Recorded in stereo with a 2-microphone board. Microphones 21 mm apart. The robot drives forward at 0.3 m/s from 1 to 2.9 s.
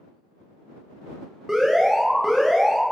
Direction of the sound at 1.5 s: 25° right (ahead or behind).